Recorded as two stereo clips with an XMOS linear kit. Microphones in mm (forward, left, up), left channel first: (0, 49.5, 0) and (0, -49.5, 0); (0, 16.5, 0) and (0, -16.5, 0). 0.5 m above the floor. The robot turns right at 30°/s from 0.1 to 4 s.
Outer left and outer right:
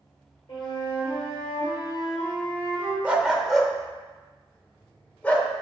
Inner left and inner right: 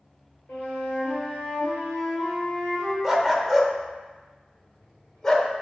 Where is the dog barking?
15° right (ahead or behind), 0.6 m; by 5.5 s 10° left (ahead or behind), 0.6 m.